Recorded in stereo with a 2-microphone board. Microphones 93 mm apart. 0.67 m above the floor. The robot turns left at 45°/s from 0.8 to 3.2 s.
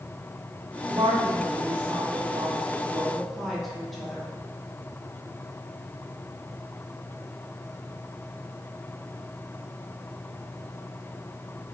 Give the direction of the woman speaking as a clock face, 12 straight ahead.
3 o'clock.